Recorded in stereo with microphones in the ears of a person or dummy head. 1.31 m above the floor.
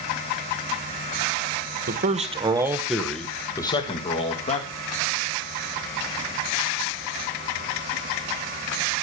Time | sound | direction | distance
1.9 | a man speaking | 50° right (ahead or behind) | 1.2 m